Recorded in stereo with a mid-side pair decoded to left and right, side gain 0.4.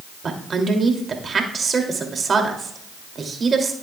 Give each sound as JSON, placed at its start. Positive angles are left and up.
{"t": 0.2, "sound": "a woman speaking", "azimuth_deg": -45, "distance_m": 2.5}